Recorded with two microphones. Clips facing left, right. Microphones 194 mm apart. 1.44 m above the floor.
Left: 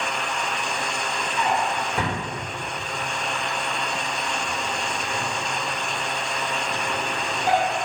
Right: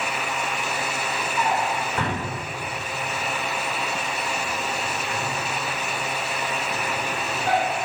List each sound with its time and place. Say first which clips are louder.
1.4 s a drawer: left 1 dB; 15° left (ahead or behind), 3 m